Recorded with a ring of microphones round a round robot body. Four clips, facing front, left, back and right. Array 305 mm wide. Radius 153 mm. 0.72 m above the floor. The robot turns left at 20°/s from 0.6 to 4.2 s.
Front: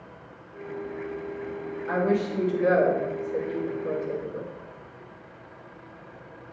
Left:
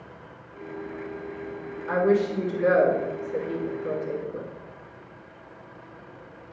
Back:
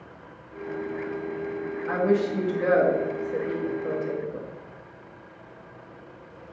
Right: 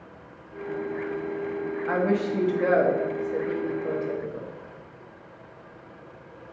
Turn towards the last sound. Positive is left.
turn(degrees=-145)